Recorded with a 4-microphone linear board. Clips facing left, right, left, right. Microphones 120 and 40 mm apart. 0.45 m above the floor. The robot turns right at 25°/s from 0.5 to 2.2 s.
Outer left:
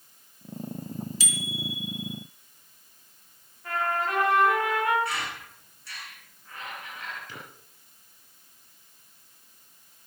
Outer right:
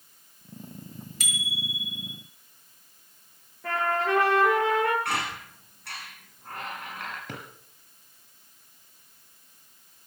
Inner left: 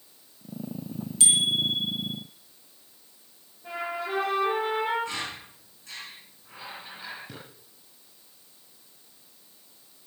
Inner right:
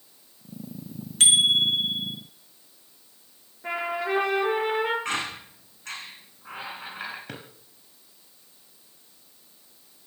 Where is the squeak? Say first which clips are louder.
Outer right 3 dB, inner right 4 dB; 70° right (ahead or behind), 8 m.